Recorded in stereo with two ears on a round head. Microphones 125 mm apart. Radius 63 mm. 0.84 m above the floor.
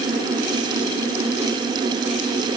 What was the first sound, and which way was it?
Only background noise.